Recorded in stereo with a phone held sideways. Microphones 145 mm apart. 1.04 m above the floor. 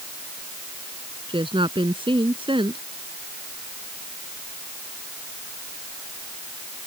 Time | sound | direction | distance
1.3 | a woman speaking | 40° right (ahead or behind) | ?